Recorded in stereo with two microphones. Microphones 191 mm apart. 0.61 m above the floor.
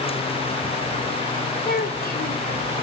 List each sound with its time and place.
1.6 s a child speaking: 55° left (ahead or behind), 1.6 m